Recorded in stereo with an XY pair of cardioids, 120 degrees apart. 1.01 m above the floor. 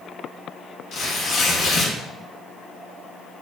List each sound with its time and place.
0.9 s tearing paper: 50° left, 0.9 m